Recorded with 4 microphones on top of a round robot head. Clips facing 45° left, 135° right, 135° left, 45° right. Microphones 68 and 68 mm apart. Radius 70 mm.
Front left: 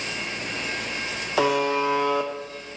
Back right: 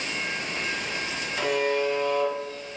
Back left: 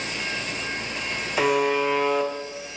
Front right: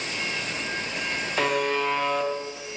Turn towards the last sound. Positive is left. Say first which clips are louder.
# front left 3 dB, back left 4 dB
turn(degrees=50)